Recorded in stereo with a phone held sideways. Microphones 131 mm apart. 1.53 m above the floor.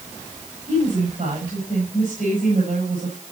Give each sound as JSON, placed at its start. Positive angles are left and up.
{"t": 0.7, "sound": "a woman speaking", "side_deg": -70, "distance_m": 7.5}